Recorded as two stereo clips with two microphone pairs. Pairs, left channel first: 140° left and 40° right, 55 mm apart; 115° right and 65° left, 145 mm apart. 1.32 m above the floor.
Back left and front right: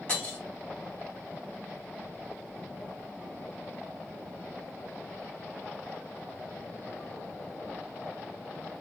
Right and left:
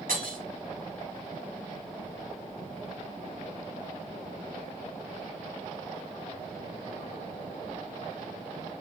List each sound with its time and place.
0.1 s breaking glass: 70° left, 2.5 m